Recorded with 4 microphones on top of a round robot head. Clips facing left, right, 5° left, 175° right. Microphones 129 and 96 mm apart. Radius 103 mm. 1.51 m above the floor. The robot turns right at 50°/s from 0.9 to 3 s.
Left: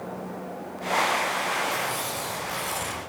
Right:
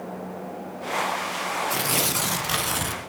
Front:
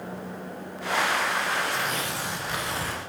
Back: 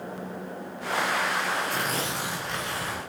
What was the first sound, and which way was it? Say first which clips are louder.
Tearing paper: right 2 dB, even; 120° right.